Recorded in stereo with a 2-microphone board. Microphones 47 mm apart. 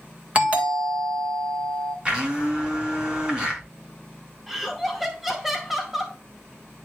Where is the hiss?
No hiss in this recording.